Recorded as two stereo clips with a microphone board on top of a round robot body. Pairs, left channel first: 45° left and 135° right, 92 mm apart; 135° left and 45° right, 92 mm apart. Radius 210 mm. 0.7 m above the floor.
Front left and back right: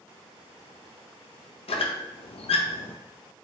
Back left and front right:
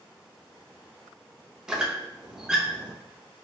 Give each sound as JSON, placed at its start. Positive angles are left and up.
{"t": 1.7, "sound": "a squeak", "azimuth_deg": 40, "distance_m": 0.5}